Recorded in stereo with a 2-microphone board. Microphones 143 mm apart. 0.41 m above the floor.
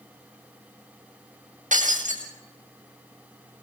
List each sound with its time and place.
1.7 s breaking glass: 60° right (ahead or behind), 7.5 m